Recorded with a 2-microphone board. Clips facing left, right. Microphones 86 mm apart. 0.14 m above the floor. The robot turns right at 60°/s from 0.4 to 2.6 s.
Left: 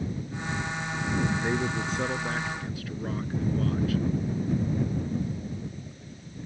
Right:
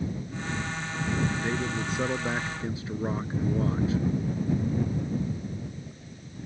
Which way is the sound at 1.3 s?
145° left.